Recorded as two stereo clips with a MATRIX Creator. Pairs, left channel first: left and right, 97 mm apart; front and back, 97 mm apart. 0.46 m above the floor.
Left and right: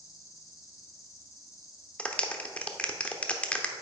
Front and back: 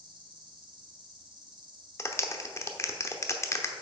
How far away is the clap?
About 0.8 m.